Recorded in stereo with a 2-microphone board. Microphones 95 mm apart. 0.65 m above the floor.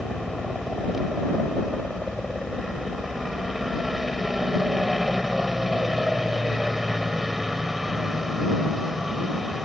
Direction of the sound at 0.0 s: Centre (ahead or behind).